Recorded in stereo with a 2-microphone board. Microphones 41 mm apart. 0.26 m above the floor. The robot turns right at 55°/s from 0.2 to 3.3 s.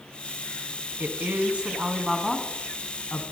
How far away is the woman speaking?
About 2 m.